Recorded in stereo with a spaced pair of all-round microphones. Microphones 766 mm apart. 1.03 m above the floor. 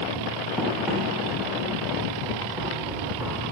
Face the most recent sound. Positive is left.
turn(degrees=-5)  # may be behind; listen again after turning